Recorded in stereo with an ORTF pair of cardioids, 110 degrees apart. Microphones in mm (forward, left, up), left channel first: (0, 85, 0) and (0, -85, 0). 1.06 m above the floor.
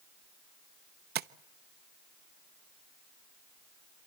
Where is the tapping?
70° right, 0.9 m.